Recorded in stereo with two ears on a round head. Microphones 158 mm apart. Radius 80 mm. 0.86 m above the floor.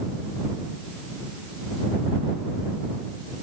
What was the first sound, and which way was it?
Only background noise.